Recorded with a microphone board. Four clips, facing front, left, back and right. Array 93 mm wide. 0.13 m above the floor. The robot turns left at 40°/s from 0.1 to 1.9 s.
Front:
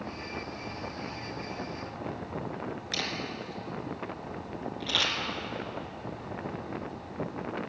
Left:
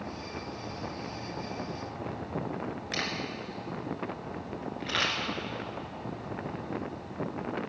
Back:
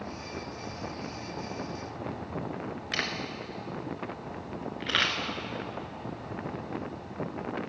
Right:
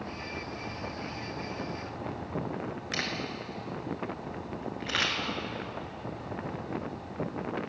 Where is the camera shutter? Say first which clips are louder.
Even, back 3 dB; 170° right, 2 m.